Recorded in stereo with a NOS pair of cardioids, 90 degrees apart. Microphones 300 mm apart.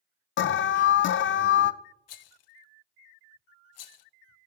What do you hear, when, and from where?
0.4 s an alarm: 40° left, 0.5 m
2.1 s a rattle: 60° left, 0.6 m